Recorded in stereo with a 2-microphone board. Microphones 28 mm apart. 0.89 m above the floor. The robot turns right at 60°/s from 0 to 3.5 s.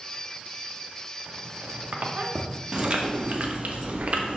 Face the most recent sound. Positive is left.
turn(degrees=-95)